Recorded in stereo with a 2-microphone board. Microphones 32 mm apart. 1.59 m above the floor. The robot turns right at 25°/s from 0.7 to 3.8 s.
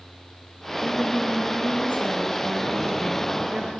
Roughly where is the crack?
No crack in this recording.